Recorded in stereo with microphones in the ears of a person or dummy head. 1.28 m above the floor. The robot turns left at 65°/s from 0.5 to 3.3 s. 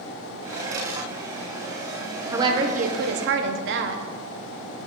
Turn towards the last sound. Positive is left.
turn(degrees=-85)